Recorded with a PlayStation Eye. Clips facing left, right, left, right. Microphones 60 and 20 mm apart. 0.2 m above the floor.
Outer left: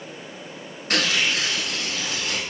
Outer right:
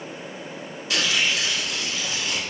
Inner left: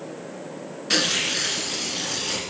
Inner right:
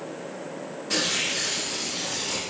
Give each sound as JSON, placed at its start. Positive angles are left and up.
{"t": 0.9, "sound": "tearing paper", "side_deg": 50, "distance_m": 0.8}